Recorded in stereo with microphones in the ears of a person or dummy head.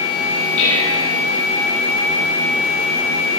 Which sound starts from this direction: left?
Dishes clattering, at 0.6 s.